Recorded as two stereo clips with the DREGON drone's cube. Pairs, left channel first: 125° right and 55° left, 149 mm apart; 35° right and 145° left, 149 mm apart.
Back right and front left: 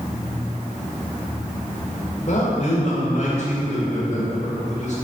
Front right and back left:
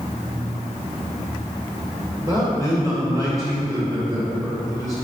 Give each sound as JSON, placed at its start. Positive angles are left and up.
{"t": 2.2, "sound": "a man speaking", "azimuth_deg": -150, "distance_m": 2.5}